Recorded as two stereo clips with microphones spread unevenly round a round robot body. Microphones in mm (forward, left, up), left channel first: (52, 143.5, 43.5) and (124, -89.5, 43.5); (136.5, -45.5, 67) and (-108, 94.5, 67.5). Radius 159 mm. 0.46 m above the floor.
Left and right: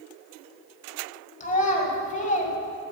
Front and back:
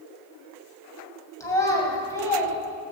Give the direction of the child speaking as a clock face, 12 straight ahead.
10 o'clock.